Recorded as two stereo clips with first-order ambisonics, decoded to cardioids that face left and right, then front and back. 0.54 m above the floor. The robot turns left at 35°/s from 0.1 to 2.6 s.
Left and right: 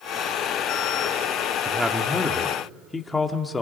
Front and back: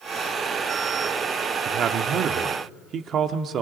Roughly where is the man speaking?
Behind.